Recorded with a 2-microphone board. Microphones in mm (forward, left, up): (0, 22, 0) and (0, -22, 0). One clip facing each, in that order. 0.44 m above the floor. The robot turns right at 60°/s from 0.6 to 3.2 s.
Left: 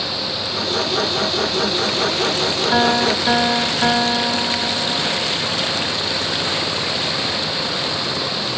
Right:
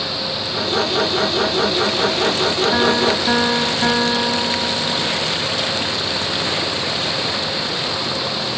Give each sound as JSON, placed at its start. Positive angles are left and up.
{"t": 2.7, "sound": "a piano", "side_deg": 55, "distance_m": 1.9}